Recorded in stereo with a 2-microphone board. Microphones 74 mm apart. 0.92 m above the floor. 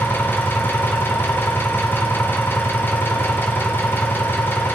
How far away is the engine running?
About 2.5 m.